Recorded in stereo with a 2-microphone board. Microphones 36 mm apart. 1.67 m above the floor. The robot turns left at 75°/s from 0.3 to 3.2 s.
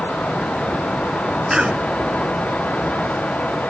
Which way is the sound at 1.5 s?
20° right (ahead or behind).